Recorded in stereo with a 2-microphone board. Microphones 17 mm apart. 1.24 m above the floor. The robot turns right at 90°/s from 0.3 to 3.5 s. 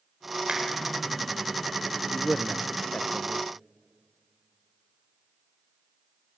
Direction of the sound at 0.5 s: 80° right.